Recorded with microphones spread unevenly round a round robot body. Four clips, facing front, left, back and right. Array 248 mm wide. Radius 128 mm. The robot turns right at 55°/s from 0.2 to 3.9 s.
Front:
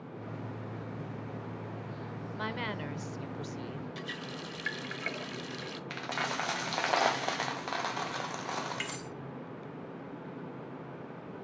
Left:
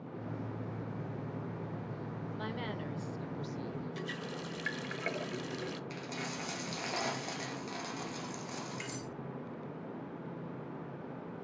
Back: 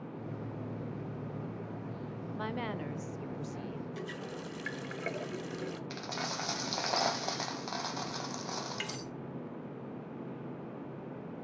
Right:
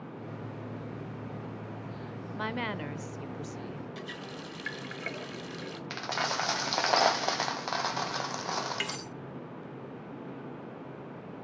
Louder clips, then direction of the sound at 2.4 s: Right 7 dB, even; 90° right.